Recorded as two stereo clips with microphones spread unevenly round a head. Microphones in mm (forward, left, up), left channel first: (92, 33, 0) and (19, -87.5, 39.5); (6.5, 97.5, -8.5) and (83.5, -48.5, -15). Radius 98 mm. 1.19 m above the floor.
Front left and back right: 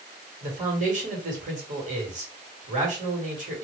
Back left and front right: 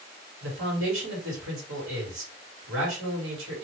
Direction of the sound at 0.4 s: 85° right.